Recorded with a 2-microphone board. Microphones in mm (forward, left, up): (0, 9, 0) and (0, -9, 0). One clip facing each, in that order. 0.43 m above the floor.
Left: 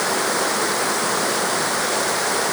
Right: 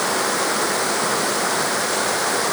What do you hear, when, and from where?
Only background noise.